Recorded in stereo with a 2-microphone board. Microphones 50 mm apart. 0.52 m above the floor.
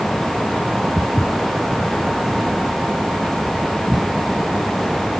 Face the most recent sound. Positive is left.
turn(degrees=0)  # may be behind; listen again after turning